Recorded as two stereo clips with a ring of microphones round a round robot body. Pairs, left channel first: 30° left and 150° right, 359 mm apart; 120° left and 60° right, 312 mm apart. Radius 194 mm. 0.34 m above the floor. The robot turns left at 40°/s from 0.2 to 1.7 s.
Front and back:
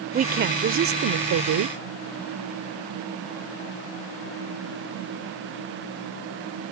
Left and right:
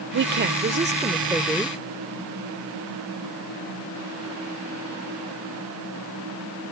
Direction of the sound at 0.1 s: 90° right.